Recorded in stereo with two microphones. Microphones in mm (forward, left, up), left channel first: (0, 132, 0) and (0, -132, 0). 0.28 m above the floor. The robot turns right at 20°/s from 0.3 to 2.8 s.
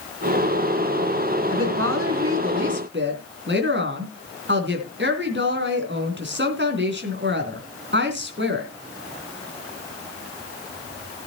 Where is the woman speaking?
60° right (ahead or behind), 3 m; by 8.7 s 45° right (ahead or behind), 3 m.